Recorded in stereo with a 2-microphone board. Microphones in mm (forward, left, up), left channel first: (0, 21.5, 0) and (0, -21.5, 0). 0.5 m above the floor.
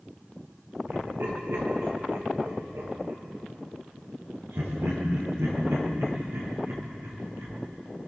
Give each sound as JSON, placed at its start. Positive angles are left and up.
{"t": 0.9, "sound": "laughter", "side_deg": -80, "distance_m": 9.5}